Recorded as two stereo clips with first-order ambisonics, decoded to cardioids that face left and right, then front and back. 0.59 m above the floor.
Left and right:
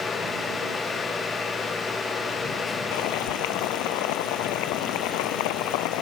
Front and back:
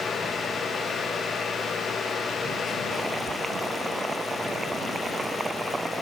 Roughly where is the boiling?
Left.